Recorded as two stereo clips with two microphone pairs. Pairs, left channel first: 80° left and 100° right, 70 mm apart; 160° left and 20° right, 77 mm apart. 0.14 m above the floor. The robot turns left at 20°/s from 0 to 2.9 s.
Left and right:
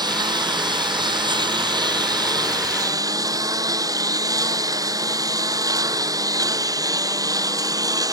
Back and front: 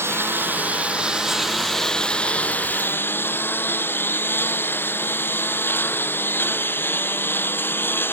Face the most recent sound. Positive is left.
turn(degrees=-135)